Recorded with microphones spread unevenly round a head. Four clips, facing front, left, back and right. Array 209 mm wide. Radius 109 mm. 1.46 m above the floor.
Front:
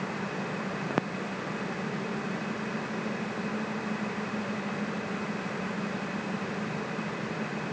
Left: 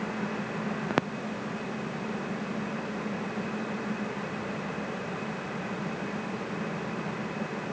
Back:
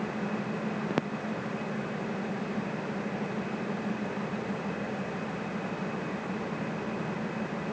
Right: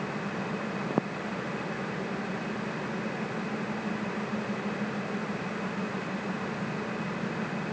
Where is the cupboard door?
I don't hear a cupboard door.